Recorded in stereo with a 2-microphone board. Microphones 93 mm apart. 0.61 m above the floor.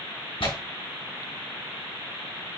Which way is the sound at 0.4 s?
80° left.